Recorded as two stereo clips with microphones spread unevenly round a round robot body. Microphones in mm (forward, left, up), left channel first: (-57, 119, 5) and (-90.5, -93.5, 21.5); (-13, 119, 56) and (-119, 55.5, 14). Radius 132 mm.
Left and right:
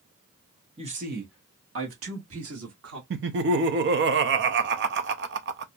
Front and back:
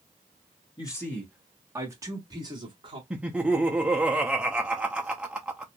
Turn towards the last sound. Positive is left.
turn(degrees=-90)